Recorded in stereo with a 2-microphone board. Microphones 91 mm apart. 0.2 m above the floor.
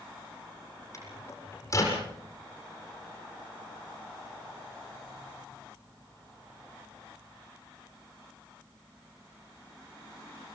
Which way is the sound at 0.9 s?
35° left (ahead or behind).